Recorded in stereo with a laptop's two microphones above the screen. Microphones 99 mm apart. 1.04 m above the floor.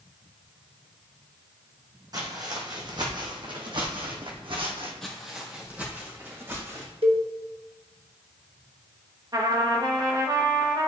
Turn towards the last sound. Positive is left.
turn(degrees=-40)  # may be behind; listen again after turning